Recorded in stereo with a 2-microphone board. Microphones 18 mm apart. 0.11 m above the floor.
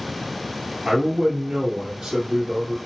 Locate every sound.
0.8 s a man speaking: 35° right (ahead or behind), 2 m